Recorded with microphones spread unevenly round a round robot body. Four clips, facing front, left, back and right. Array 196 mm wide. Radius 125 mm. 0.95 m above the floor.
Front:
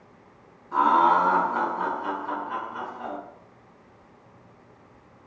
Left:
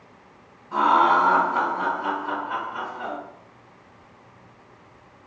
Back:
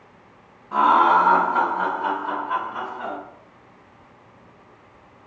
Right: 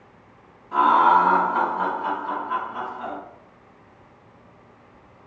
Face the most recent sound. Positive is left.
turn(degrees=170)